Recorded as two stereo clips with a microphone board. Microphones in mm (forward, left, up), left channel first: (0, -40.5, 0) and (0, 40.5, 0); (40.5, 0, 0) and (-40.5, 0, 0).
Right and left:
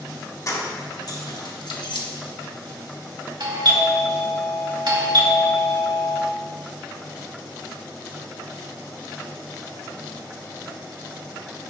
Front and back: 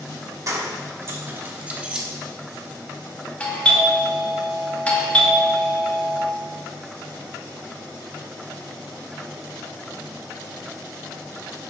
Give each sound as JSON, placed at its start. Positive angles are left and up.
{"t": 0.5, "sound": "keys jangling", "azimuth_deg": -135, "distance_m": 1.8}
{"t": 3.4, "sound": "a doorbell", "azimuth_deg": 70, "distance_m": 2.0}